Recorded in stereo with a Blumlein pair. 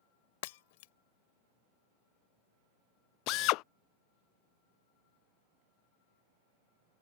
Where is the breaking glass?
50° left.